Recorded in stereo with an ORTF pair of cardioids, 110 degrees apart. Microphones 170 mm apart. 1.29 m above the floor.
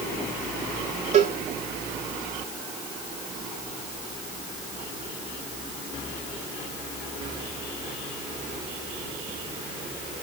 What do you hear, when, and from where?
1.1 s a cowbell: 40° right, 3 m